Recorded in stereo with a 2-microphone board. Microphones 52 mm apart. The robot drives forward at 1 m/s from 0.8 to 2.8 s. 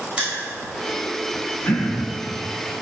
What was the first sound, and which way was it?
Crushing, 20° right (ahead or behind).